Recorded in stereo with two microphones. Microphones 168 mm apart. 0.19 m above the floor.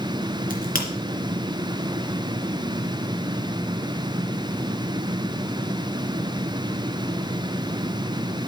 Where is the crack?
60° left (ahead or behind), 2.5 m.